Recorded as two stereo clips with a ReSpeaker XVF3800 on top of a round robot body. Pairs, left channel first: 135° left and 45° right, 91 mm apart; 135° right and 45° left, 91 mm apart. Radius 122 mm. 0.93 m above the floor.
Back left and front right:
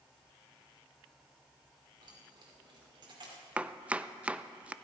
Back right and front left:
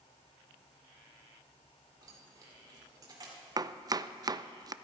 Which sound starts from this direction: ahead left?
Chopping, at 3.6 s.